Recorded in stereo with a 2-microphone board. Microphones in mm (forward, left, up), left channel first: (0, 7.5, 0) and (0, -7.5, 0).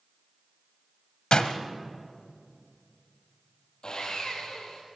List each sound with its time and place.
1.3 s a door slam: 60° left (ahead or behind), 1.4 m
3.8 s sawing: 50° left (ahead or behind), 5 m